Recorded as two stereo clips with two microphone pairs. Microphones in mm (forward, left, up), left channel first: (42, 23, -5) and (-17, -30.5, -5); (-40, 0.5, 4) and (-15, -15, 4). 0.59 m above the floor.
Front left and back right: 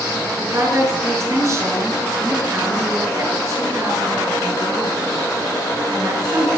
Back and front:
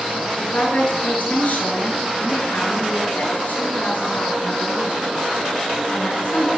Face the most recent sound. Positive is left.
turn(degrees=170)